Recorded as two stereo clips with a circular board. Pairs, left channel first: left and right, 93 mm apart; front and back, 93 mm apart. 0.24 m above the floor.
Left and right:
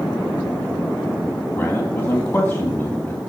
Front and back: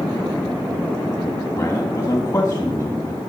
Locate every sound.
1.6 s a man speaking: 35° left, 2 m